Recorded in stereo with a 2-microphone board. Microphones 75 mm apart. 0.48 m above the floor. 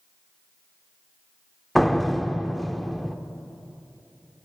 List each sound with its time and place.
1.8 s a door slam: centre (ahead or behind), 0.9 m